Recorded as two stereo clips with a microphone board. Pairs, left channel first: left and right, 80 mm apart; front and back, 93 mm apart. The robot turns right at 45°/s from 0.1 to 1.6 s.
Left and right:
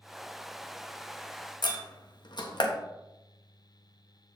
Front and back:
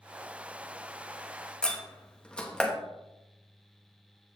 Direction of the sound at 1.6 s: 80° left.